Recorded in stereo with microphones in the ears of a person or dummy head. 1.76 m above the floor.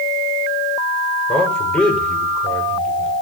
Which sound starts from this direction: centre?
A man speaking, at 1.3 s.